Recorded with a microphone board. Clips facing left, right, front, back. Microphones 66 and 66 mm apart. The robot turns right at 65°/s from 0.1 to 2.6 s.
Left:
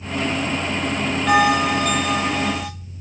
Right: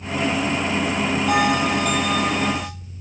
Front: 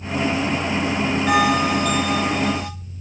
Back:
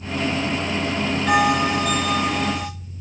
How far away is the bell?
About 3 m.